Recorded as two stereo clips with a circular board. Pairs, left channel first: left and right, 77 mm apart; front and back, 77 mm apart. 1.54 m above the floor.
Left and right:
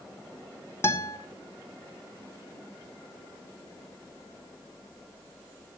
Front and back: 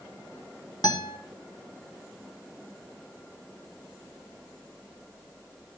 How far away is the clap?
I don't hear a clap.